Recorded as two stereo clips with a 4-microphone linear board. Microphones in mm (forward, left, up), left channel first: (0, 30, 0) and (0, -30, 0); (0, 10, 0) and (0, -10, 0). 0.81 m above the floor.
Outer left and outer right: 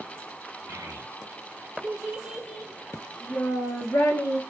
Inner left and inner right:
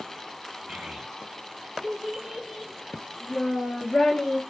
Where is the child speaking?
60° right (ahead or behind), 1.0 m; by 4.4 s 45° left (ahead or behind), 1.5 m.